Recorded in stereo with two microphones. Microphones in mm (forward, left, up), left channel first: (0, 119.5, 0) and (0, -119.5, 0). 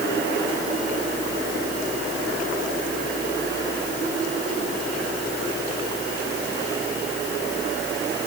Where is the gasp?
I don't hear a gasp.